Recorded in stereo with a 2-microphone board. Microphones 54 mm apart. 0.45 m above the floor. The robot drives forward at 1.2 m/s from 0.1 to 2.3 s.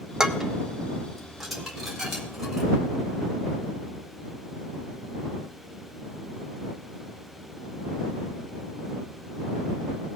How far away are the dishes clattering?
About 0.8 m.